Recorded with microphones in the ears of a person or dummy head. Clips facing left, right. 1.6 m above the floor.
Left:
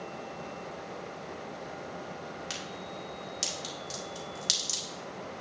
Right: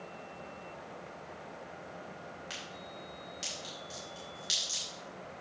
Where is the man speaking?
No man speaking in this recording.